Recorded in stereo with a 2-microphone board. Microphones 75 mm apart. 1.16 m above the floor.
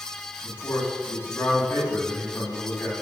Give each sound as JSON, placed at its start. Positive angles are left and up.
{"t": 0.4, "sound": "a man speaking", "side_deg": 30, "distance_m": 10.0}